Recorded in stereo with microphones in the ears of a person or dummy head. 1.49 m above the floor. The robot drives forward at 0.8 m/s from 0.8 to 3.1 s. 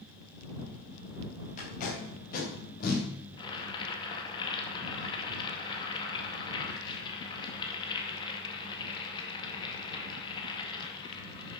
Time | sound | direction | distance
1.6 | tape being pulled | 45° left (ahead or behind) | 4.5 m
3.4 | boiling | 30° left (ahead or behind) | 2 m